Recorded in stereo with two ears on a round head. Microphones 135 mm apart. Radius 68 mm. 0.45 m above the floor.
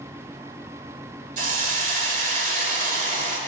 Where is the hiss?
55° right (ahead or behind), 1.7 m.